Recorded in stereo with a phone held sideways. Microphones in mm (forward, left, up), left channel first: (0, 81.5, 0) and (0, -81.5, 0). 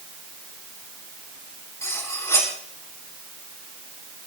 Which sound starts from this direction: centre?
Cutlery clinking, at 1.8 s.